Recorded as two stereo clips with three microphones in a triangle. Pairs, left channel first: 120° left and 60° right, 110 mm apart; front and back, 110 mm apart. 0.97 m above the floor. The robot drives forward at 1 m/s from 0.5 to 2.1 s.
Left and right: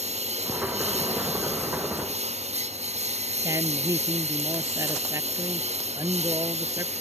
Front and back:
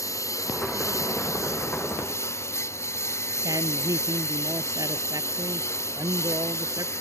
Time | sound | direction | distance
0.0 | a lawn mower | 60° right | ?
3.4 | a woman speaking | 120° right | ?